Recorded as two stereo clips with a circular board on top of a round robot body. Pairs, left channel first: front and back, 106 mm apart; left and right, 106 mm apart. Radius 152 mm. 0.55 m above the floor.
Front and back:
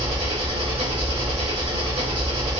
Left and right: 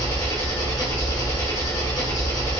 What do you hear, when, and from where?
0.0 s an engine running: 150° left, 1.5 m